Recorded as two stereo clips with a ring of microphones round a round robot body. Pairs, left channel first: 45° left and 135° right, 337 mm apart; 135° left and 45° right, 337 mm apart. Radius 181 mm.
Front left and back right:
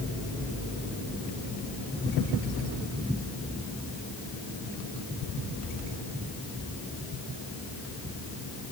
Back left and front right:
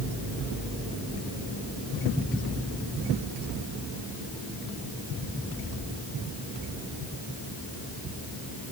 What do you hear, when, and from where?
Only background noise.